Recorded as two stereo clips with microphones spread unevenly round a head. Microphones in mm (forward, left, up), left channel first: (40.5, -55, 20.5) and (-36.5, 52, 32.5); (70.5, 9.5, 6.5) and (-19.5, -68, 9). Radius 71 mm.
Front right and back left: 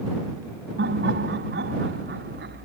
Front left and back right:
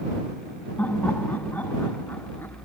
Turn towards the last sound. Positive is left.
turn(degrees=120)